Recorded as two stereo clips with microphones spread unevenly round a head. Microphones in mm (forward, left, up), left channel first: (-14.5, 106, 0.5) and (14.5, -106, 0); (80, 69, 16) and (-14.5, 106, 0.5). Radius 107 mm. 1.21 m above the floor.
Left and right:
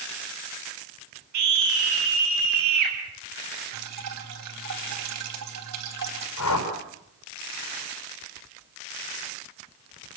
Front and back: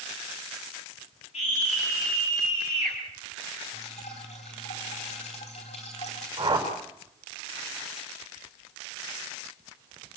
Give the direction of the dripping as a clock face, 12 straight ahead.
2 o'clock.